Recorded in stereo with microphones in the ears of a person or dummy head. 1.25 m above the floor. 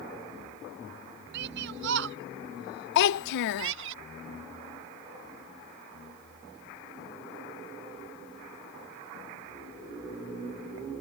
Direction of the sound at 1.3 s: 65° right (ahead or behind).